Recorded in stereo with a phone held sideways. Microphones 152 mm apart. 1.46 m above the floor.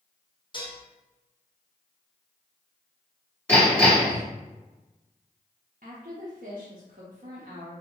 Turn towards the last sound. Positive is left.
turn(degrees=-65)  # may be behind; listen again after turning